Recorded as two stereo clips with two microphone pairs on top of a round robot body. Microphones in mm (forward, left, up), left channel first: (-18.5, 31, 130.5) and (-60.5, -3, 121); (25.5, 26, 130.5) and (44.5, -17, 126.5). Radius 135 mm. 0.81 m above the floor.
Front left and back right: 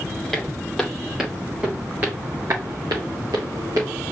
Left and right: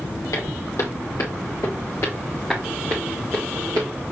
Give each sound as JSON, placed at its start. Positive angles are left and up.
{"t": 0.3, "sound": "footsteps", "azimuth_deg": 120, "distance_m": 1.6}